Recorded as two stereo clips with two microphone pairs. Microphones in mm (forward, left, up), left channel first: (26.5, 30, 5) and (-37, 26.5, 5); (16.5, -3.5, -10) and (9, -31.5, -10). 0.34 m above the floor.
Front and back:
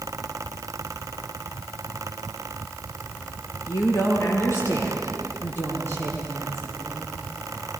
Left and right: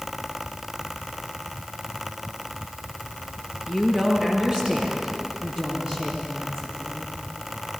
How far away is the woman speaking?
About 5.5 m.